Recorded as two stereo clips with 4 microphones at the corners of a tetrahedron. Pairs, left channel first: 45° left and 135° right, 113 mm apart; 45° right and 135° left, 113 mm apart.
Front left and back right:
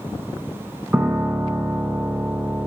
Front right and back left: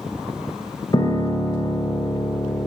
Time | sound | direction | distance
0.9 | a piano | 60° right | 0.9 m